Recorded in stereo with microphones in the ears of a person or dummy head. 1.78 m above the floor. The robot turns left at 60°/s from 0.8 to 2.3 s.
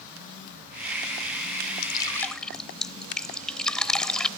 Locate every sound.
1.8 s dripping: 30° left (ahead or behind); by 4.3 s 5° left (ahead or behind)